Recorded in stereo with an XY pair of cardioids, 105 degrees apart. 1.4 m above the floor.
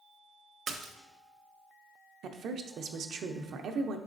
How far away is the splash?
About 0.7 m.